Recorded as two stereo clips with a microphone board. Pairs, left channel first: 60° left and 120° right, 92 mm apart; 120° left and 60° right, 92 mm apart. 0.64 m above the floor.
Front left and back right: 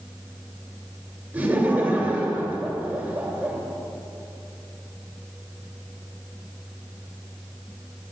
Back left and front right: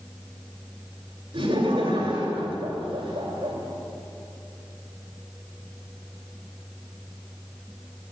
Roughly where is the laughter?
Ahead right.